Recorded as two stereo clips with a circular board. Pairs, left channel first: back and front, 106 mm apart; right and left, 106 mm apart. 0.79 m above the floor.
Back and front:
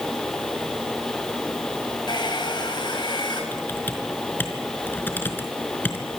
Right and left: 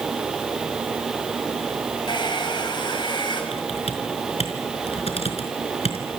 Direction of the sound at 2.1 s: 135° right.